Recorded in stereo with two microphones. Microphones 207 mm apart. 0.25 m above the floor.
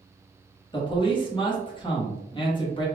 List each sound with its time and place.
0.7 s a man speaking: 25° left (ahead or behind), 1.4 m